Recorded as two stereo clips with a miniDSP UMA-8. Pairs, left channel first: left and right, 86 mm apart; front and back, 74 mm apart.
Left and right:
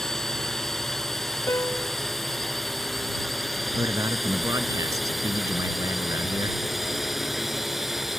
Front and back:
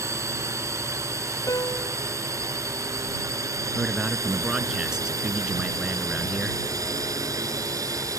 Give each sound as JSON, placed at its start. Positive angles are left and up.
{"t": 0.0, "sound": "a drone", "azimuth_deg": 175}
{"t": 1.5, "sound": "a piano", "azimuth_deg": 35}
{"t": 3.8, "sound": "a man speaking", "azimuth_deg": -100}